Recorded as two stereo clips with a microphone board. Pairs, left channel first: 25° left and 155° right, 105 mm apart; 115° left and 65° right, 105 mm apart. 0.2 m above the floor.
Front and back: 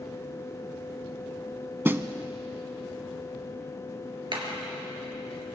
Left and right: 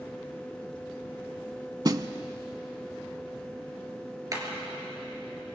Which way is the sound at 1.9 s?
100° right.